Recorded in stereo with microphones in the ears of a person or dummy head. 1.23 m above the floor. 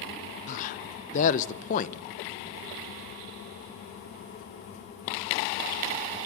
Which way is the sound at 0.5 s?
40° left (ahead or behind).